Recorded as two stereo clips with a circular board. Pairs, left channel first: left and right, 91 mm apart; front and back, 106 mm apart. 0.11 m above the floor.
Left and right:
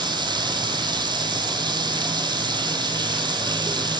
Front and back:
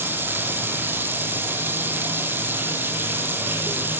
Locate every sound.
0.0 s running water: 110° right, 2.5 m